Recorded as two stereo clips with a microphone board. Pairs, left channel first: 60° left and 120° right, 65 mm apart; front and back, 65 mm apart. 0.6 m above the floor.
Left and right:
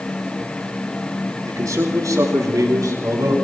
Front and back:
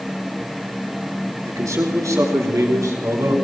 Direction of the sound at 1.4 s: 145° right.